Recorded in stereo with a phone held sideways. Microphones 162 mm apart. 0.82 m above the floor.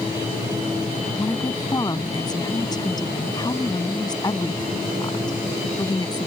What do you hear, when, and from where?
1.1 s a woman speaking: 25° left (ahead or behind)